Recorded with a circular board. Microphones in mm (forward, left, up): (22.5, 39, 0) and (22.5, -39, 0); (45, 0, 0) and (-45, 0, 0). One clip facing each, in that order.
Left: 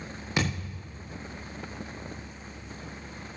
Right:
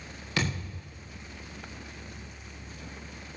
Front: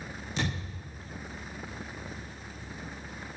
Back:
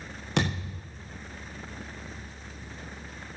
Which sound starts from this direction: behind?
A thud, at 0.4 s.